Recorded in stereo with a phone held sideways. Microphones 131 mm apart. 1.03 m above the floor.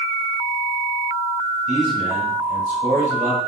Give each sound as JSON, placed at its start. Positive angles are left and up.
{"t": 1.7, "sound": "a man speaking", "side_deg": -75, "distance_m": 1.8}